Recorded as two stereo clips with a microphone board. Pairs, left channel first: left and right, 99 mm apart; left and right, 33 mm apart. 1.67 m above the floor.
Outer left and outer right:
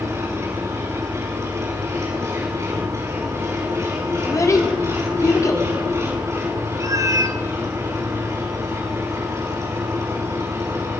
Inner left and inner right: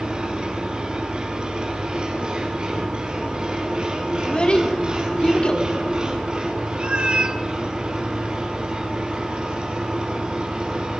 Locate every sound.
0.0 s an engine running: 30° right (ahead or behind), 7 m
4.2 s a child speaking: 35° left (ahead or behind), 3.5 m
6.8 s a cat meowing: 35° right (ahead or behind), 1.4 m